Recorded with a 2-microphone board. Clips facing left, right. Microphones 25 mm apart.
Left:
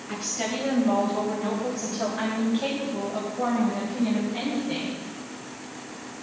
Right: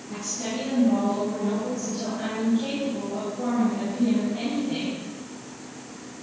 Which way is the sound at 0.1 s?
75° left (ahead or behind).